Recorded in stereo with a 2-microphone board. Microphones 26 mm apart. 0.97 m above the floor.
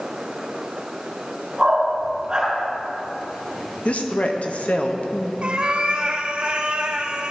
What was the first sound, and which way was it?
A dog barking, 30° right (ahead or behind).